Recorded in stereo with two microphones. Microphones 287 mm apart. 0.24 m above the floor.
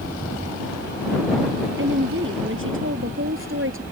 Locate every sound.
1.8 s a woman speaking: 45° right (ahead or behind); by 3.8 s 50° right (ahead or behind)